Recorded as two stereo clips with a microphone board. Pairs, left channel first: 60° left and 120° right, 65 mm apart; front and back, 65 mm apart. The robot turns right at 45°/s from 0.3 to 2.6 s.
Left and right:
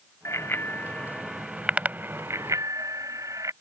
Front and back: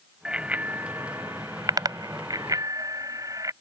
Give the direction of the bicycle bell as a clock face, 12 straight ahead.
9 o'clock.